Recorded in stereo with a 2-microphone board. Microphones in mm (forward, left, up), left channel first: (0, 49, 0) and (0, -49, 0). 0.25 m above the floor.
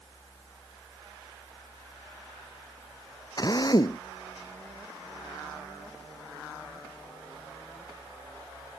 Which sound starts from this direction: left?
A drill, at 3.4 s.